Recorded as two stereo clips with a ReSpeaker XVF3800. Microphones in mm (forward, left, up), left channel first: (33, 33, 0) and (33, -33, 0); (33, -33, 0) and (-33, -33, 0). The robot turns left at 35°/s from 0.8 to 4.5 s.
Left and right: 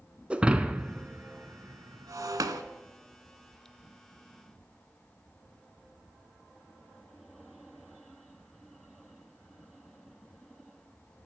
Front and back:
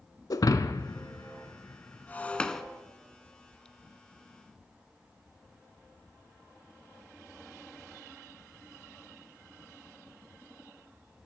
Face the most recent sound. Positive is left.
turn(degrees=-145)